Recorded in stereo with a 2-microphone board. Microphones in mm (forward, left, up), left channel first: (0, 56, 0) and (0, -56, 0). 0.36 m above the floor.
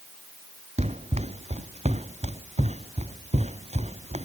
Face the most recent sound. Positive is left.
turn(degrees=-75)  # may be behind; listen again after turning